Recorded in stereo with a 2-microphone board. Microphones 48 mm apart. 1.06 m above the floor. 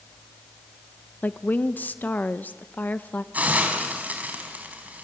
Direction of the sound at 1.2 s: 40° left (ahead or behind).